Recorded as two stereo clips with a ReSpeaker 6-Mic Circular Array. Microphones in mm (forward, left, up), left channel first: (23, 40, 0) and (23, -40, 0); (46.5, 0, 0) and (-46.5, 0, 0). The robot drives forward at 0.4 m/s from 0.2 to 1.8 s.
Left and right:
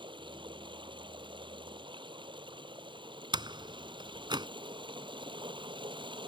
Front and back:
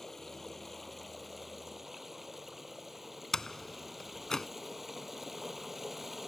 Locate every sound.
0.0 s running water: 90° right; by 6.3 s 95° right
3.3 s a door slam: 85° right